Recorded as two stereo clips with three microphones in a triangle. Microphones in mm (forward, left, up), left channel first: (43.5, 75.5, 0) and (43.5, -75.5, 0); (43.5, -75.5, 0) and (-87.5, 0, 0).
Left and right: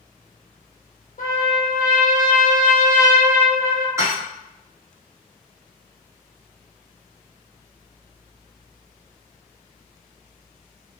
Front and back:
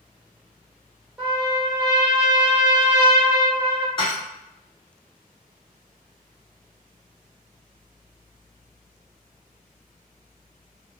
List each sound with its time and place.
1.2 s a trumpet: 65° left, 0.8 m
4.0 s dishes clattering: 35° right, 1.1 m